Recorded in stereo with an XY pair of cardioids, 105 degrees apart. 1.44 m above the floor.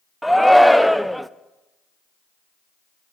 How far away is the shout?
About 0.5 m.